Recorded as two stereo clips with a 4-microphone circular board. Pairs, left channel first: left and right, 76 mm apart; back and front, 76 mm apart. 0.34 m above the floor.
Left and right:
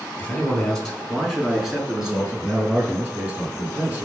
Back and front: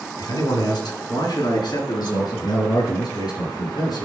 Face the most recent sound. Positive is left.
turn(degrees=-160)